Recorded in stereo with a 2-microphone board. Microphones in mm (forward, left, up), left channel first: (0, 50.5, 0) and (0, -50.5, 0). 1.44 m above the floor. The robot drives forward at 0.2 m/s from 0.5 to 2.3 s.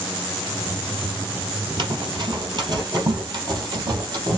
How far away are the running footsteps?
About 2 m.